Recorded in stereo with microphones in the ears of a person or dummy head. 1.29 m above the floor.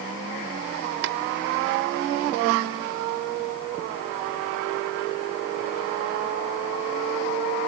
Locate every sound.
1.0 s tapping: 60° right (ahead or behind)